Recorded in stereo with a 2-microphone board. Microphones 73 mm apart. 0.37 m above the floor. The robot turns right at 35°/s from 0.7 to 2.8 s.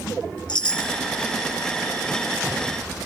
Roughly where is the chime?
Left.